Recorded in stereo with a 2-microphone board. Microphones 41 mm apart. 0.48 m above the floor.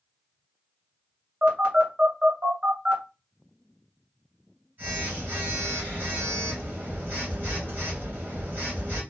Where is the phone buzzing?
50° right (ahead or behind), 2 m.